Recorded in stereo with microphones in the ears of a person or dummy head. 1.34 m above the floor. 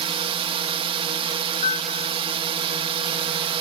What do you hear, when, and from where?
0.0 s a drone: 30° right (ahead or behind)
1.6 s a piano: 45° left (ahead or behind)